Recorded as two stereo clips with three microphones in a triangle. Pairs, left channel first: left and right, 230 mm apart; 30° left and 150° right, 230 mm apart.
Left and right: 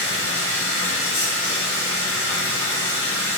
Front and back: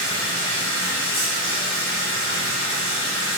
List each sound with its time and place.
0.0 s running water: 60° left, 4 m